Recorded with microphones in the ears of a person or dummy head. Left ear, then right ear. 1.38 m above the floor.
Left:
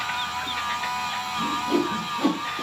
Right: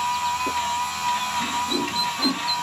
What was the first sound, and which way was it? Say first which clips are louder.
A machine running: right 4 dB; 75° right (ahead or behind).